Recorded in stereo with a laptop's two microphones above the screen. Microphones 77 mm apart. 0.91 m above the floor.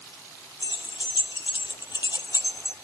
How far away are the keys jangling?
About 1.5 m.